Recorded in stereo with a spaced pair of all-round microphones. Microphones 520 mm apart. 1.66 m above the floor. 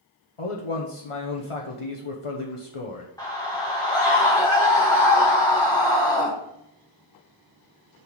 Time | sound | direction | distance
0.4 | a man speaking | 70° left (ahead or behind) | 1.0 m
3.2 | a scream | 5° left (ahead or behind) | 1.5 m